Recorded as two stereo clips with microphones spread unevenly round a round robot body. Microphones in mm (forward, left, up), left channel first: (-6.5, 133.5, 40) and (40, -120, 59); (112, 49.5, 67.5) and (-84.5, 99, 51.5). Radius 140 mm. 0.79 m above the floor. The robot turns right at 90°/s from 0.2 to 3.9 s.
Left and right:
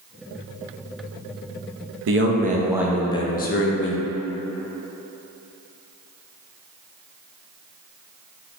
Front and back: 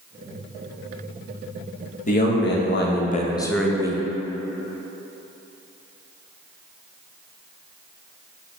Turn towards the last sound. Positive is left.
turn(degrees=105)